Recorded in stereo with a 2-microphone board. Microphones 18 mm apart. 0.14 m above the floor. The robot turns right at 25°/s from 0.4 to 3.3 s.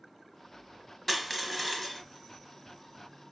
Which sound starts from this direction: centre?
Crushing, at 1.1 s.